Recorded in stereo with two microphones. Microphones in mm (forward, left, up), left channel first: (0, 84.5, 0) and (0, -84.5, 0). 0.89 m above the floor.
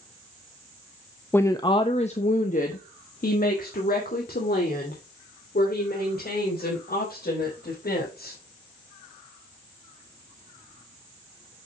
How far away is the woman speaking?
About 0.7 m.